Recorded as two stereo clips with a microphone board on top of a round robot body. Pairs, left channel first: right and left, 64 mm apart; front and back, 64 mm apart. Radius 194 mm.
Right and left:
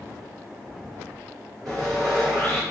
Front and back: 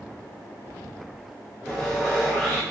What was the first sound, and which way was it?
Sawing, 85° left.